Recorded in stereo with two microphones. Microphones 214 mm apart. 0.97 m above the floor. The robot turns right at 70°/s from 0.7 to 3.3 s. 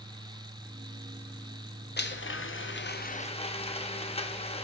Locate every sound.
2.0 s a blender: 55° left, 0.6 m; by 4.7 s 150° left, 0.6 m